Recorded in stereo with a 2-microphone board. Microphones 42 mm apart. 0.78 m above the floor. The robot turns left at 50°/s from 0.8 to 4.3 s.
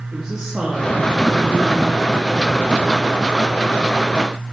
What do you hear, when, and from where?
0.1 s a woman speaking: 15° right, 1.4 m; by 2.6 s 105° right, 1.4 m